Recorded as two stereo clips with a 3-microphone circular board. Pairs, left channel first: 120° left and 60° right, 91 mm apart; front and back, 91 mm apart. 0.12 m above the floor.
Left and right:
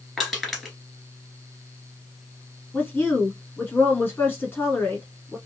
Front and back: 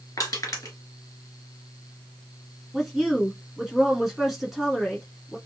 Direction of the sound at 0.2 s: 35° left.